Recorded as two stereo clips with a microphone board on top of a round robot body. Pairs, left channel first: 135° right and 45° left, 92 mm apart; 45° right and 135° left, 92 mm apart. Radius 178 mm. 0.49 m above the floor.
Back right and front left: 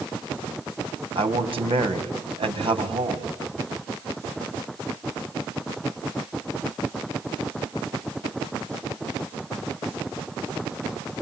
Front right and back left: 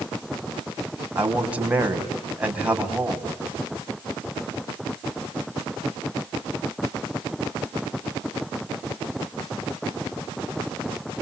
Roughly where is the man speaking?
Ahead left.